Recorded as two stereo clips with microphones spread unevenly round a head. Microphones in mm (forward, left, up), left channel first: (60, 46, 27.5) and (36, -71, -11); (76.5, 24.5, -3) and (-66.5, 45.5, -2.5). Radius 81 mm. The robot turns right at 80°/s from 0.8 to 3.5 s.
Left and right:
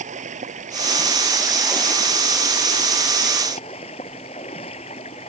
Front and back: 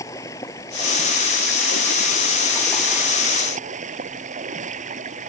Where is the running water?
80° right; by 5.3 s 135° left.